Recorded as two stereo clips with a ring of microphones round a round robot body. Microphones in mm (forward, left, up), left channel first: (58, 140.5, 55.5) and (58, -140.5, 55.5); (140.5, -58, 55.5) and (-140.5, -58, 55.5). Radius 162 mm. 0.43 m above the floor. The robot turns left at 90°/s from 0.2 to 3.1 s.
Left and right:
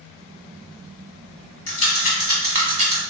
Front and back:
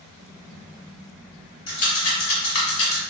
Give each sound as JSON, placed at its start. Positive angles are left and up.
{"t": 1.7, "sound": "a rattle", "azimuth_deg": 75, "distance_m": 1.4}